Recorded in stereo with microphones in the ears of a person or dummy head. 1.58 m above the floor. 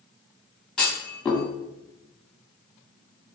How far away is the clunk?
About 2.5 m.